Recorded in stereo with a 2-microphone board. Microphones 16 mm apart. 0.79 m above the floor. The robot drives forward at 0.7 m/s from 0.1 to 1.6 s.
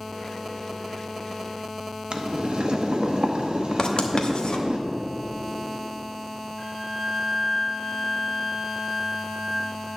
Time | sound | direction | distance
2.1 | boiling | 60° right (ahead or behind) | 0.9 m
3.8 | writing | 55° left (ahead or behind) | 0.8 m
6.6 | a flute | 30° left (ahead or behind) | 2.5 m